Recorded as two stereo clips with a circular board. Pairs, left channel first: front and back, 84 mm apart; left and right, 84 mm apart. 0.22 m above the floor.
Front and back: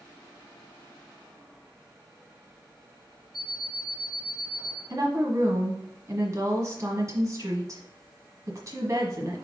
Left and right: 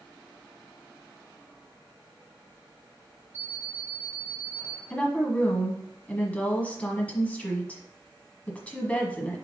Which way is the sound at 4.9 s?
155° left.